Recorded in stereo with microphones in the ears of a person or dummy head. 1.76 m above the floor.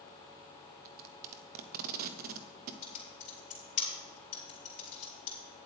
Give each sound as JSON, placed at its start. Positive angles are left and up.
{"t": 0.8, "sound": "tape being pulled", "side_deg": -50, "distance_m": 0.6}
{"t": 2.8, "sound": "typing on a keyboard", "side_deg": 50, "distance_m": 3.5}